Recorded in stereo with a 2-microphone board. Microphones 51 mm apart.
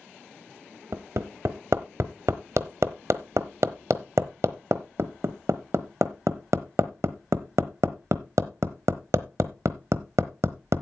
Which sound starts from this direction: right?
Hammering, at 0.9 s.